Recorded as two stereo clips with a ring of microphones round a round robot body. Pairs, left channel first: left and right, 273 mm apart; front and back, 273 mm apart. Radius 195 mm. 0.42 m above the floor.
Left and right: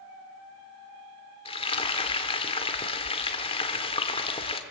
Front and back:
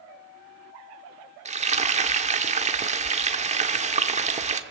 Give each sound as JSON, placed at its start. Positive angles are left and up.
{"t": 1.4, "sound": "frying", "azimuth_deg": 140, "distance_m": 1.3}